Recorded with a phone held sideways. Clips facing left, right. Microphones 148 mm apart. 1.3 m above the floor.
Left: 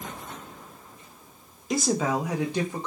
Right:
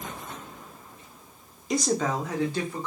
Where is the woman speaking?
Centre (ahead or behind), 0.8 m; by 2.9 s 20° left (ahead or behind), 1.3 m.